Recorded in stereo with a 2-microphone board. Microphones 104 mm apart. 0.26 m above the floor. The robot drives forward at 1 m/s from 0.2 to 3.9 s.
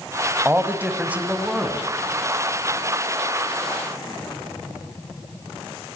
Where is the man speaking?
20° right (ahead or behind), 1.3 m; by 1.9 s 10° right (ahead or behind), 2 m.